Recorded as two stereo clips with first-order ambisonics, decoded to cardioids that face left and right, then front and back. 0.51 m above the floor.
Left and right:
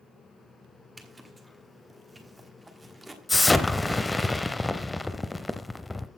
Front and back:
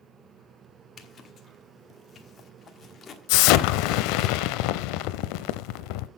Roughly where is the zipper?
Ahead.